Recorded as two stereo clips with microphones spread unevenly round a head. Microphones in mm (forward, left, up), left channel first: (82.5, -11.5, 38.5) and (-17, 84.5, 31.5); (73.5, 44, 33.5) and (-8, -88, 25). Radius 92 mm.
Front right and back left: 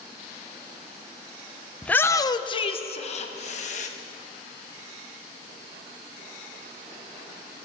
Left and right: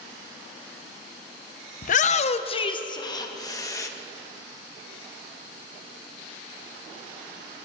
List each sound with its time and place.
1.8 s a shout: 40° left, 0.5 m; by 3.9 s 10° right, 1.4 m